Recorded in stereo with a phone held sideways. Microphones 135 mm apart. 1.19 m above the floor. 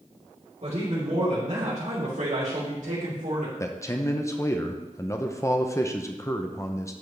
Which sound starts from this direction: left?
A man speaking, at 3.6 s.